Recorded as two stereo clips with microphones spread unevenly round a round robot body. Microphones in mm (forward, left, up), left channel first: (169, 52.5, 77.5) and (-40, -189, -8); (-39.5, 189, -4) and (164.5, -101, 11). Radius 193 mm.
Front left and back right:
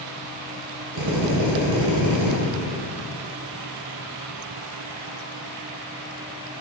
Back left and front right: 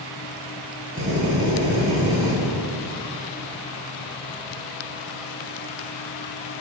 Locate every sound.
0.9 s a drill: 115° right, 2.5 m